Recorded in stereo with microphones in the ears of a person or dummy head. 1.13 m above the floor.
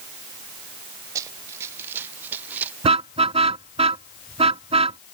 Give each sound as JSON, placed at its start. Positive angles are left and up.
{"t": 1.1, "sound": "running footsteps", "side_deg": -20}
{"t": 2.8, "sound": "a car horn", "side_deg": -35}